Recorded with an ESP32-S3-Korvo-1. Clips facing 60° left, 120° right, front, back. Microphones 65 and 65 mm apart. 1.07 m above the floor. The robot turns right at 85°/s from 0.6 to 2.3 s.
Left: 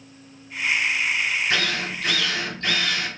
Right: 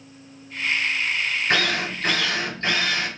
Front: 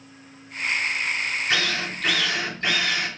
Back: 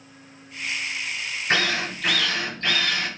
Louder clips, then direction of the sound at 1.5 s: Right 2 dB, back 6 dB; 140° right.